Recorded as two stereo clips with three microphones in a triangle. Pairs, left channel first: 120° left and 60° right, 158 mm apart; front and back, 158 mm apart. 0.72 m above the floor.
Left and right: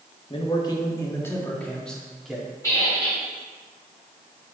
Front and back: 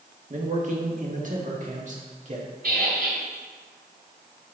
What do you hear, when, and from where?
0.3 s a man speaking: 165° left, 1.4 m; by 2.5 s 150° right, 1.8 m
2.6 s a squeak: 170° right, 2.5 m